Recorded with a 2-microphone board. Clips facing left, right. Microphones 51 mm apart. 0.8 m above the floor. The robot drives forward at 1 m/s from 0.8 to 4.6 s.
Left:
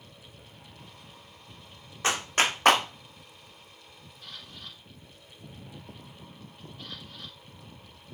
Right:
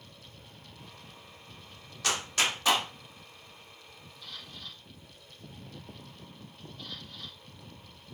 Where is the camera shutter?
40° left (ahead or behind), 4 m.